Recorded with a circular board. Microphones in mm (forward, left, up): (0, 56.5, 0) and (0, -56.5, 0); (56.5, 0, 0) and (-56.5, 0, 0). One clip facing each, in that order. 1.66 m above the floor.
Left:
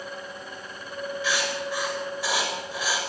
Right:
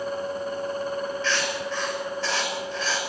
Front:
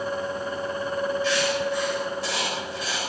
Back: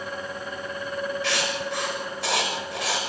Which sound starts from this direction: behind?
Writing, at 1.2 s.